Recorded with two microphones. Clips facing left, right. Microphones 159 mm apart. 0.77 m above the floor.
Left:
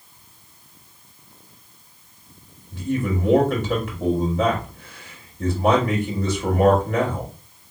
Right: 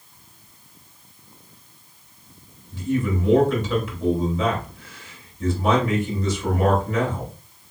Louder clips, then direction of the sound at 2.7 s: Even; 60° left (ahead or behind).